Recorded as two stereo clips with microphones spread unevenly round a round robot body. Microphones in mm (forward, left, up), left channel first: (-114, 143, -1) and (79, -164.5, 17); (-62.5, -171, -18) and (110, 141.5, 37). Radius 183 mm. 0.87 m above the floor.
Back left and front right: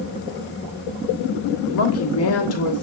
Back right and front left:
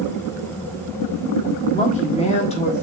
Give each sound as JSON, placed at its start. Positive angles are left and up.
{"t": 1.7, "sound": "a woman speaking", "azimuth_deg": 170, "distance_m": 1.3}